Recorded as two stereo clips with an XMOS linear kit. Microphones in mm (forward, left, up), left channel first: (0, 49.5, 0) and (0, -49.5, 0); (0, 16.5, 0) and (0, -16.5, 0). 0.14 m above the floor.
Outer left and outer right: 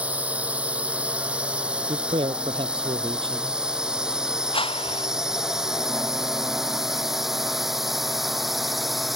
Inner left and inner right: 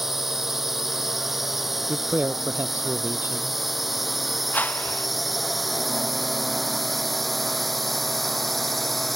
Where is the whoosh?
65° left (ahead or behind).